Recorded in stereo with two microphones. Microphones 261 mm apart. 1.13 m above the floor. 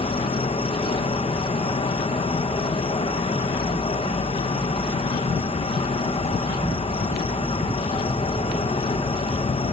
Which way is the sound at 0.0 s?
20° left (ahead or behind).